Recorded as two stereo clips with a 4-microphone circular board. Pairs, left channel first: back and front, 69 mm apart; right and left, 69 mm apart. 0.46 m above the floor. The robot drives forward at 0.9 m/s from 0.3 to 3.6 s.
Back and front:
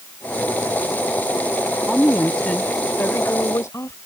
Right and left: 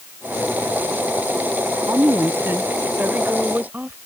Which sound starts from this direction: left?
A woman speaking, at 1.9 s.